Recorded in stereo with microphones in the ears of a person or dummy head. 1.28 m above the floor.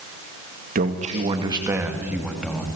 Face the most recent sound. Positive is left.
turn(degrees=5)  # may be behind; listen again after turning